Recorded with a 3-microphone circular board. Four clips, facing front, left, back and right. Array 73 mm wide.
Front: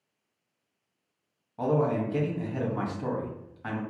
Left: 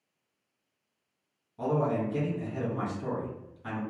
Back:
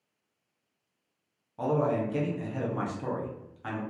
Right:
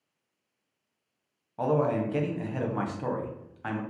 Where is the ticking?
No ticking in this recording.